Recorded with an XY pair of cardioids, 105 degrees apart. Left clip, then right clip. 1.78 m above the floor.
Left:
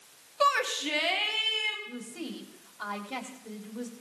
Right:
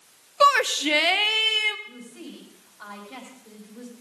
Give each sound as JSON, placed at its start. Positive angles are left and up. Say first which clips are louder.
{"t": 0.4, "sound": "a shout", "louder": "right 7 dB", "azimuth_deg": -45, "distance_m": 0.7}
{"t": 1.9, "sound": "a woman speaking", "louder": "left 2 dB", "azimuth_deg": 35, "distance_m": 4.0}